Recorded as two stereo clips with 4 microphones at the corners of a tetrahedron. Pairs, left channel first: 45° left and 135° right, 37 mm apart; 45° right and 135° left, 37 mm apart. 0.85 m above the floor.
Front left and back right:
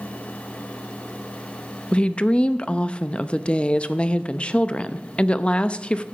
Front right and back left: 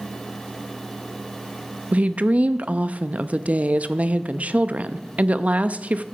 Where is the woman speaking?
100° left, 0.6 m.